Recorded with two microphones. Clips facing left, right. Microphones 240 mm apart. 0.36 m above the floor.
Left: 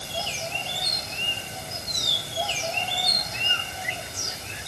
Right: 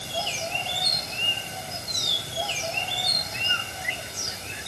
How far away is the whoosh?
No whoosh in this recording.